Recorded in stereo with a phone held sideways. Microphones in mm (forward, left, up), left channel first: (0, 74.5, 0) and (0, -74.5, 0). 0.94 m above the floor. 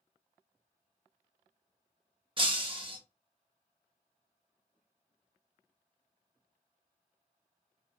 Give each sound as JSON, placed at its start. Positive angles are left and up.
{"t": 2.4, "sound": "breaking glass", "side_deg": -35, "distance_m": 0.6}